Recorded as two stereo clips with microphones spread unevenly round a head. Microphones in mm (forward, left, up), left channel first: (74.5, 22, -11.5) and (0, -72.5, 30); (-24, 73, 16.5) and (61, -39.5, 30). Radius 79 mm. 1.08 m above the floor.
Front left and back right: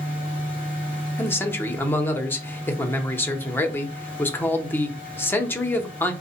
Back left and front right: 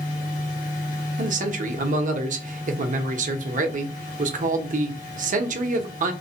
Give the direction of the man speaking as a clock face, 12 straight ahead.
1 o'clock.